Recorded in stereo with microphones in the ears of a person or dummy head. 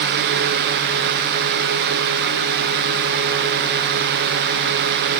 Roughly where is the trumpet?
I don't hear a trumpet.